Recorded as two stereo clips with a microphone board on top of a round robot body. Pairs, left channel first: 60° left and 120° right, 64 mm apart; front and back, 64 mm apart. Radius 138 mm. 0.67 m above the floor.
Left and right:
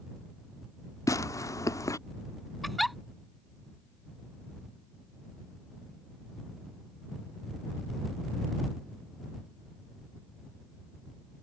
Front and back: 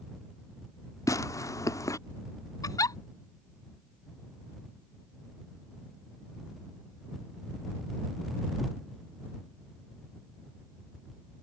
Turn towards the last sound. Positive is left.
turn(degrees=-30)